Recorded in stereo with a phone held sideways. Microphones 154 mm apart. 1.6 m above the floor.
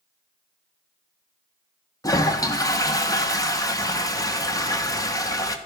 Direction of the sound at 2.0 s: 25° left (ahead or behind).